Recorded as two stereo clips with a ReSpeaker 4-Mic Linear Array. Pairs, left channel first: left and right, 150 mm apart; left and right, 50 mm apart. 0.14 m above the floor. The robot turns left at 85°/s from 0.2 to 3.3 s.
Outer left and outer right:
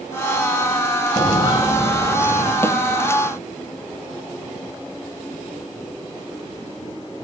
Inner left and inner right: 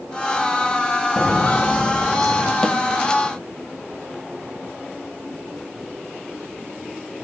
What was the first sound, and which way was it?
Footsteps, 30° left (ahead or behind).